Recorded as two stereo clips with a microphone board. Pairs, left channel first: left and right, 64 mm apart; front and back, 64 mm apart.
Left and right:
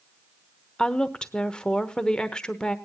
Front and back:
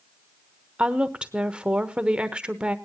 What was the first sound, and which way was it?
A woman speaking, 135° left.